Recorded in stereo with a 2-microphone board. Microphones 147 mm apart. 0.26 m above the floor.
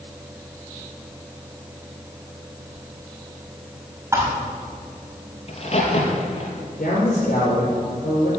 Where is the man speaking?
65° left (ahead or behind), 6.5 m.